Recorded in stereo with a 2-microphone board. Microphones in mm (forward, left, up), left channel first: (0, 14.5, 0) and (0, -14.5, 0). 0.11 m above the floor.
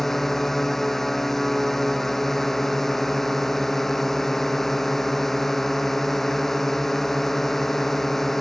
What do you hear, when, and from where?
0.0 s a drone: 5° left (ahead or behind)